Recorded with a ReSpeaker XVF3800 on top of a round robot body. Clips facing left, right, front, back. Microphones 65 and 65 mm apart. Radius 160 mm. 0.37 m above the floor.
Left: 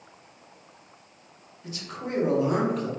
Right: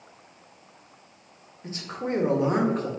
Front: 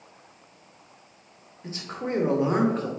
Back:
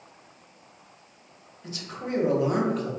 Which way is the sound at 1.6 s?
45° right.